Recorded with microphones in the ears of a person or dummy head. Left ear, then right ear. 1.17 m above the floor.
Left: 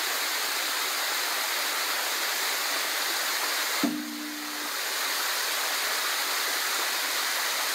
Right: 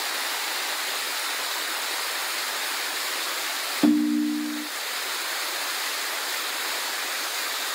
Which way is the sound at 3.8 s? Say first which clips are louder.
Right 9 dB; 55° right (ahead or behind).